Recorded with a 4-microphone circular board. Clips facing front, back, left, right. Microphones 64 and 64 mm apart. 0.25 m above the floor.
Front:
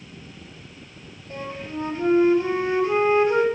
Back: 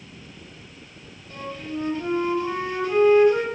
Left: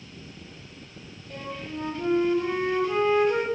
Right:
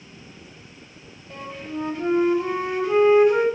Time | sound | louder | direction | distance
1.3 | a flute | even, right 3 dB | 25° right | 1.6 m